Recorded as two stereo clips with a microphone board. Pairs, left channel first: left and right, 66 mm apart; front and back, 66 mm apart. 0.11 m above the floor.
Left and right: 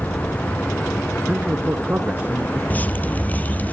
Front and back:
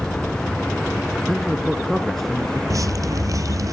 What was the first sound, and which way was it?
A man speaking, 85° right.